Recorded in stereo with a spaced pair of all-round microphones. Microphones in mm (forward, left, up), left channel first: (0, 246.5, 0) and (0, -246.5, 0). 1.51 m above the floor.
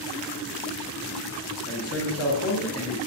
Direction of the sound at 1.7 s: 30° left (ahead or behind).